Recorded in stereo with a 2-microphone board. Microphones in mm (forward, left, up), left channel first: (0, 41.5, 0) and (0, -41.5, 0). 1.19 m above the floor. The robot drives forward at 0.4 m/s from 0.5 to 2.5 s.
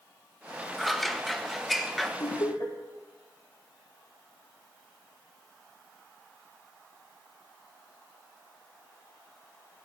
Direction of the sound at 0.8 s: Centre (ahead or behind).